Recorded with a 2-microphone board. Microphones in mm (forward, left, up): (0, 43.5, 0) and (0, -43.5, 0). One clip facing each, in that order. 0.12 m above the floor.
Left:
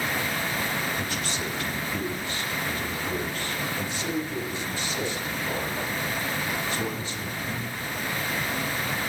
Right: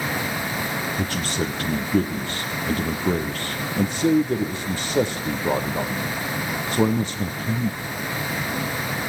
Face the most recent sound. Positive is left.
turn(degrees=-55)  # may be behind; listen again after turning